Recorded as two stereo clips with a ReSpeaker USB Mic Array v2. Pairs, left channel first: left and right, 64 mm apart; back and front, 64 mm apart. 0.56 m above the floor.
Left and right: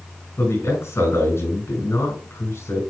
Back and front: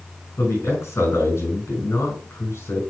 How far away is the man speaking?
About 5 m.